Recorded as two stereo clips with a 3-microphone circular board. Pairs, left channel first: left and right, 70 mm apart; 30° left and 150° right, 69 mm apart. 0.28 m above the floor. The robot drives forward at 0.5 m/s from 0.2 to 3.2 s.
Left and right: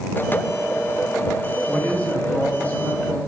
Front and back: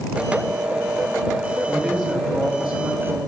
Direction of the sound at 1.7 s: 110° left.